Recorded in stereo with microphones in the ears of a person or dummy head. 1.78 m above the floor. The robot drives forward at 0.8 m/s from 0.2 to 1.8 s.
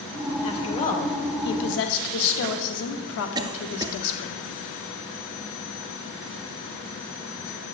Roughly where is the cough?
Right.